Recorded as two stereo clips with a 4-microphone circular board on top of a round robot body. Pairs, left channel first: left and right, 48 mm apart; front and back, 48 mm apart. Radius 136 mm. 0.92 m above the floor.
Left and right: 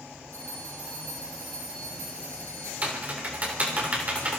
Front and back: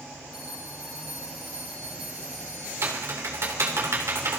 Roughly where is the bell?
Right.